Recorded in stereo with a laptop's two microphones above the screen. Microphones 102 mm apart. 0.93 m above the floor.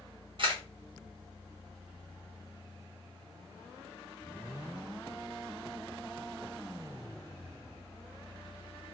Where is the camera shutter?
55° right (ahead or behind), 1.8 m.